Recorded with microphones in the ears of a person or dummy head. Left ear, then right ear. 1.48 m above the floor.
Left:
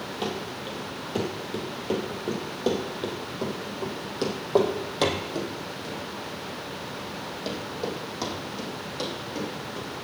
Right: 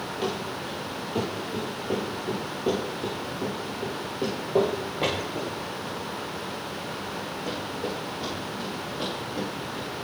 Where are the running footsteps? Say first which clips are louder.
Right 1 dB; 25° left (ahead or behind), 2.5 m; by 9.9 s 65° left (ahead or behind), 5 m.